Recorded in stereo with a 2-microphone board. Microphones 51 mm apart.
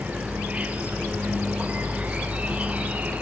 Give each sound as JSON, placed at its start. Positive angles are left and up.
{"t": 0.0, "sound": "an insect", "side_deg": -25, "distance_m": 2.5}